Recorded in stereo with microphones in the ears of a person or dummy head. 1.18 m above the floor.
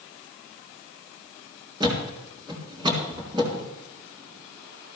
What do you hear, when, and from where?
1.8 s a thud: 25° right (ahead or behind), 3.5 m